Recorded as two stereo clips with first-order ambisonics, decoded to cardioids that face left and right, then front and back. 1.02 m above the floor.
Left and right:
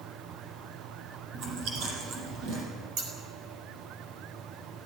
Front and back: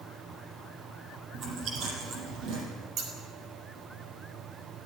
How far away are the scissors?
About 5.5 m.